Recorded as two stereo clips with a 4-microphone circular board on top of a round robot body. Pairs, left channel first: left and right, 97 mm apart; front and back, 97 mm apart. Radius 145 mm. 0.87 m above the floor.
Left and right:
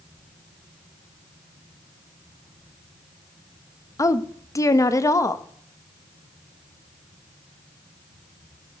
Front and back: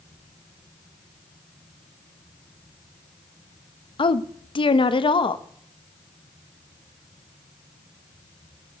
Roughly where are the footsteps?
I don't hear footsteps.